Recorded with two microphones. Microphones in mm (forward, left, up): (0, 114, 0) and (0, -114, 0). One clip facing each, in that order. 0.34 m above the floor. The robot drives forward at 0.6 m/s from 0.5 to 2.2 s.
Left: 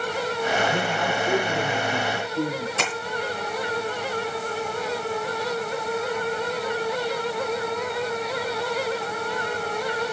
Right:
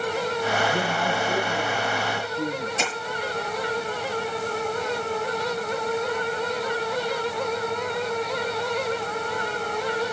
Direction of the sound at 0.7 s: 55° left (ahead or behind).